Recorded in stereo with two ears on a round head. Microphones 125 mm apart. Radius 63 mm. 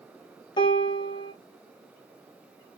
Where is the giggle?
I don't hear a giggle.